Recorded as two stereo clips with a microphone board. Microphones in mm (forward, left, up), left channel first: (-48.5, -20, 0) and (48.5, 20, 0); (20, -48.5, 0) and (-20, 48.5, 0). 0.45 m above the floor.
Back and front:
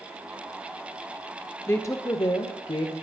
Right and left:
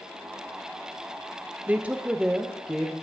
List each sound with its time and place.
1.7 s a woman speaking: 170° left, 0.8 m; by 2.9 s 160° right, 1.3 m